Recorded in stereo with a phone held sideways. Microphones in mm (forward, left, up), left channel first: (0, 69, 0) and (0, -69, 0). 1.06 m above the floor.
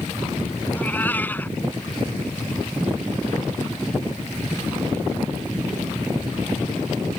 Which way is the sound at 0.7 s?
10° left (ahead or behind).